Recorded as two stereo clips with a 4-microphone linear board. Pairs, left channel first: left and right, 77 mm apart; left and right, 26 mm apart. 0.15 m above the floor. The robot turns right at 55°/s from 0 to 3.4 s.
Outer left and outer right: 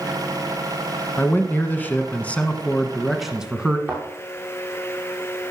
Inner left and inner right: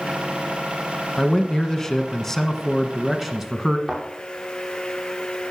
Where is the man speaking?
25° left (ahead or behind), 1.3 m; by 3.8 s 5° right (ahead or behind), 1.3 m.